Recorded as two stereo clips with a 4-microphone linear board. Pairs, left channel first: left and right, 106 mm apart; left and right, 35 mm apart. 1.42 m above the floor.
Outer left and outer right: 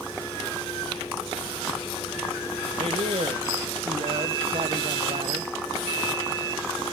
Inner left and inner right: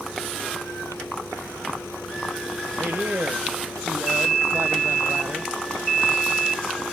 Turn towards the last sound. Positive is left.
turn(degrees=-75)  # may be behind; listen again after turning